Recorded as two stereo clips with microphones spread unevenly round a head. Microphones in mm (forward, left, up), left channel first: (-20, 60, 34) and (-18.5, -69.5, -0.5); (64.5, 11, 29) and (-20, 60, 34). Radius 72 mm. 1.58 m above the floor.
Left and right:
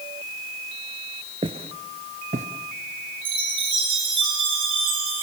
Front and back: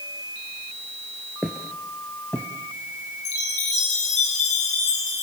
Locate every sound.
1.4 s footsteps: 135° right, 1.7 m; by 2.5 s 105° right, 1.9 m
3.2 s a chime: 30° right, 9.5 m